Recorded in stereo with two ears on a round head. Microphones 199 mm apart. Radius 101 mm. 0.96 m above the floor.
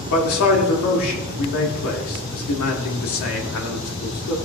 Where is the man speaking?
70° left (ahead or behind), 2 m.